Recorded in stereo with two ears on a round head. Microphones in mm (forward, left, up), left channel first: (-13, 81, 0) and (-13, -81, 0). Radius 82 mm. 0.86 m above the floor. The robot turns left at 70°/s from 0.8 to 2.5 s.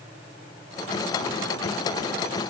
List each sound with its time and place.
Only background noise.